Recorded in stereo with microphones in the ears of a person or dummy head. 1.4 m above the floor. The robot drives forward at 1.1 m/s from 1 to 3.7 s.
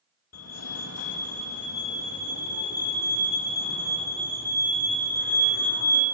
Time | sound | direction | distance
0.3 | a fire alarm | 75° left (ahead or behind) | 3.5 m